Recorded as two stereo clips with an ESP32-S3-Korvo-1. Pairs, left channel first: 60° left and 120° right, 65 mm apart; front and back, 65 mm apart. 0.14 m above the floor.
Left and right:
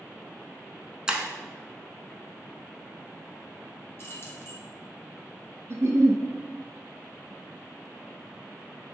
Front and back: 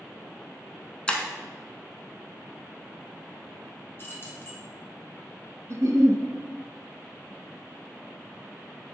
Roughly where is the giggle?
Behind.